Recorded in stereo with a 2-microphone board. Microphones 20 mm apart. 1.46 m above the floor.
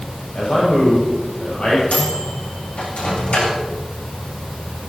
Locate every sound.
0.3 s a man speaking: 65° left (ahead or behind), 6.5 m
1.9 s a microwave: 75° left (ahead or behind), 8 m